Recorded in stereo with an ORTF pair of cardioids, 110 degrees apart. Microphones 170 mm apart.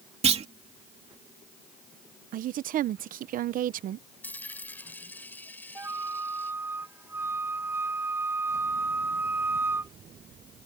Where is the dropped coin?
10° left.